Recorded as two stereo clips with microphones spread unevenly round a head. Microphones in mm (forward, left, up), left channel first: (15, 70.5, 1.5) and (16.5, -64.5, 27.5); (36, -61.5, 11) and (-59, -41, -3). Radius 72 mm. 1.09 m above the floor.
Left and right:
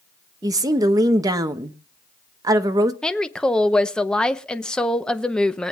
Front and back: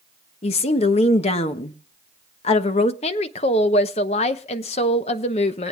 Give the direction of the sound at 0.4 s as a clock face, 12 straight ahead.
1 o'clock.